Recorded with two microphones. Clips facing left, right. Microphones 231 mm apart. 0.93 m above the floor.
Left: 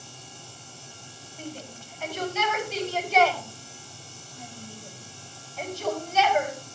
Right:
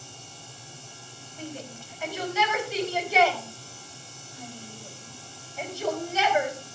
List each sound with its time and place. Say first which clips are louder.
1.4 s a shout: right 1 dB; 10° right (ahead or behind), 6.5 m